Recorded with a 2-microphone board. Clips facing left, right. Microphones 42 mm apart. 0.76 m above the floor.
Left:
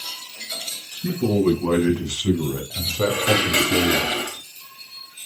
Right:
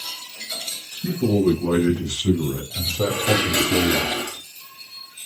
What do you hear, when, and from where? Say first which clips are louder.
0.9 s a man speaking: even; 55° left (ahead or behind), 7.5 m; by 4.1 s 70° left (ahead or behind), 4 m
3.1 s dishes clattering: left 1 dB; 50° left (ahead or behind), 3 m